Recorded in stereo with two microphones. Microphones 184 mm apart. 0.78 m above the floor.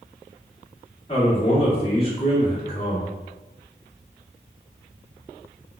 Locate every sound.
1.1 s a man speaking: 30° left (ahead or behind), 1.4 m